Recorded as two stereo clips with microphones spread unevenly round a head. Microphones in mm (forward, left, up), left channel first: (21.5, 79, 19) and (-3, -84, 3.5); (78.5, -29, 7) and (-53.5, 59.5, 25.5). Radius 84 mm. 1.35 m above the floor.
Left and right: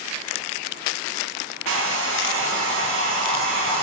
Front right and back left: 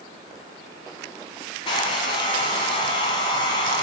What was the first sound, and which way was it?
A hair dryer, 95° right.